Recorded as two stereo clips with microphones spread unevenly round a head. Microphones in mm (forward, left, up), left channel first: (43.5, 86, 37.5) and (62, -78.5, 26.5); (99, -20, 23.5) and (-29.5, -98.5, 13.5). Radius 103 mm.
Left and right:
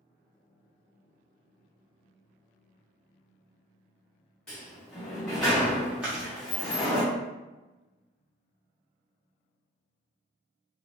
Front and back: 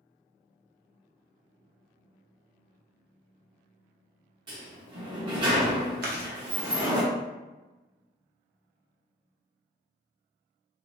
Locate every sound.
4.5 s a sliding door: 170° left, 0.6 m
6.0 s chewing: 170° right, 0.6 m